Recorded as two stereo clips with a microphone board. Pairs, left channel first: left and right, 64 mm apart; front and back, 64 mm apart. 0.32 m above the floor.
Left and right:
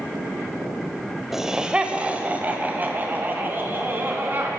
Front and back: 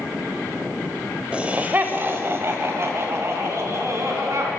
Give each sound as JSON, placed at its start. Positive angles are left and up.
{"t": 1.3, "sound": "laughter", "azimuth_deg": -160, "distance_m": 0.9}